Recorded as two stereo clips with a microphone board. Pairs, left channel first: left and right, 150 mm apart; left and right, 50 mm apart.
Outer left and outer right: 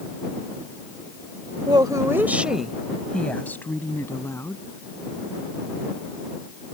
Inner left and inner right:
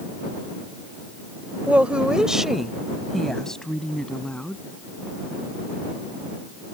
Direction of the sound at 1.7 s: 30° right (ahead or behind).